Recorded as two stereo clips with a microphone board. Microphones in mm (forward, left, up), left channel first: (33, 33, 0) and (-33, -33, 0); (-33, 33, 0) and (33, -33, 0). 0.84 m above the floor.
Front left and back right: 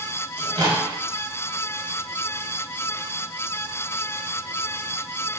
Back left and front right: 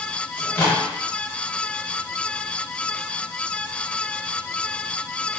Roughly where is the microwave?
Behind right.